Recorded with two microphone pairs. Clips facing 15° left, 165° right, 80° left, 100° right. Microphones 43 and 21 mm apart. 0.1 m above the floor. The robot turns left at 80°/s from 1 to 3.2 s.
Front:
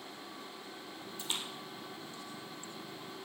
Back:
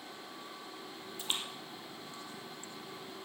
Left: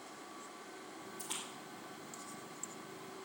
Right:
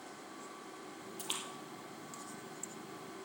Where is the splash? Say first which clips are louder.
Back 2 dB, right 4 dB; 95° right, 3.5 m; by 3.0 s 115° left, 3.5 m.